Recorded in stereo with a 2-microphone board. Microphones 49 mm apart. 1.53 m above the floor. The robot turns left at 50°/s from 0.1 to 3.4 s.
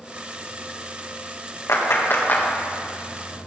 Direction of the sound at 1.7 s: 75° left (ahead or behind).